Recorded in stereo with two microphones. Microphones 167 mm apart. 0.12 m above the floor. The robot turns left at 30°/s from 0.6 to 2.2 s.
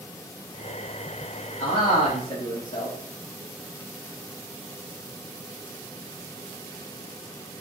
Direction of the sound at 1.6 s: 45° left (ahead or behind).